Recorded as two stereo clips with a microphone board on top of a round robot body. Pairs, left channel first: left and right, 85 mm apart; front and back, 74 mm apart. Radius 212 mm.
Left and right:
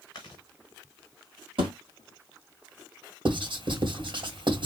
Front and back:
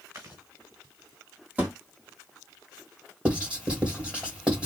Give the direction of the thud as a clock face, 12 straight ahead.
4 o'clock.